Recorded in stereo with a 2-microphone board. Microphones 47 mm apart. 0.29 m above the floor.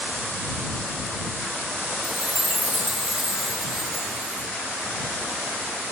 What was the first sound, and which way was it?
A chime, 10° right (ahead or behind).